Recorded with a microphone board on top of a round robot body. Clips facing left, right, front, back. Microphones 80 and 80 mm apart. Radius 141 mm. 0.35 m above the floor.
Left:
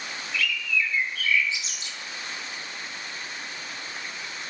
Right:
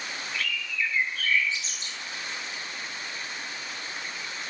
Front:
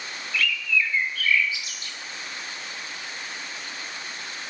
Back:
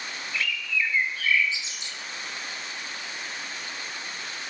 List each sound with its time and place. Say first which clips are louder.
0.3 s a bird: left 5 dB, front 4 dB; 125° right, 1.6 m